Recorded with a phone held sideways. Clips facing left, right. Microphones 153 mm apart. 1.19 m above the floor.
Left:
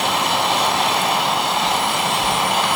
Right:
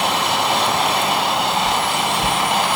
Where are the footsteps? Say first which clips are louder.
Even; 65° right (ahead or behind), 5 m.